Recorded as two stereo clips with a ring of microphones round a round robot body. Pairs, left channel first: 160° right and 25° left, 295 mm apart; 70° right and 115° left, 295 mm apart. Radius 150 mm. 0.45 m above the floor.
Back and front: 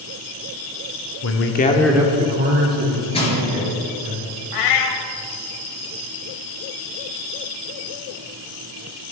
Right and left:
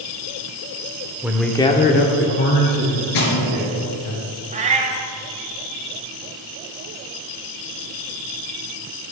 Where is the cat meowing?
Straight behind, 0.8 m.